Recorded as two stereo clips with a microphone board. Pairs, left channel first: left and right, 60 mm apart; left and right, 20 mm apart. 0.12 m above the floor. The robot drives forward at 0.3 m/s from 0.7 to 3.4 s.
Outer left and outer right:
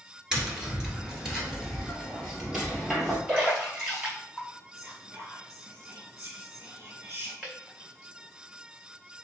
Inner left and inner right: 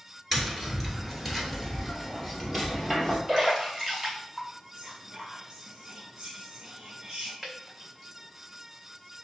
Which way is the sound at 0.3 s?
10° right (ahead or behind).